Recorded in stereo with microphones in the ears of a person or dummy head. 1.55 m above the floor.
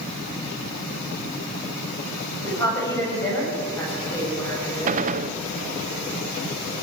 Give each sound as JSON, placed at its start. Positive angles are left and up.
{"t": 2.4, "sound": "a woman speaking", "side_deg": 20, "distance_m": 9.0}
{"t": 4.9, "sound": "a gunshot", "side_deg": -45, "distance_m": 0.5}